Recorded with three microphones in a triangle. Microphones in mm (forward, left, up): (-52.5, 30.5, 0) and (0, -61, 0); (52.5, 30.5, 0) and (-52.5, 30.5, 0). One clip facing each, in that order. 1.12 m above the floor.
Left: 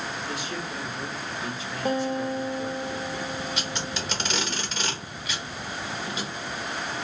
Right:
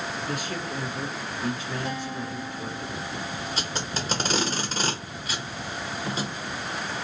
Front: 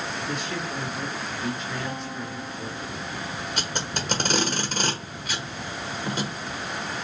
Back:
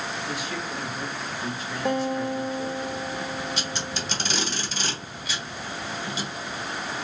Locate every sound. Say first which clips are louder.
0.3 s a man speaking: right 2 dB, front 1 dB; 95° right, 1.3 m
1.9 s a guitar: left 6 dB, back 8 dB; 165° left, 0.5 m
3.6 s tape being pulled: even, front 1 dB; 20° right, 0.9 m